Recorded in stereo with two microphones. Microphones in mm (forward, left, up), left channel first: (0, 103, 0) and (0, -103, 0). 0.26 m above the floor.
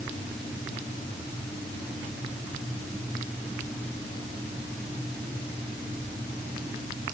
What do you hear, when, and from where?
Only background noise.